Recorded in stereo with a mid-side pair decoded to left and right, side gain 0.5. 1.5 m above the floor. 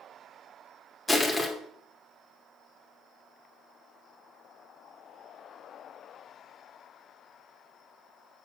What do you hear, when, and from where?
1.1 s crushing: 25° left, 2 m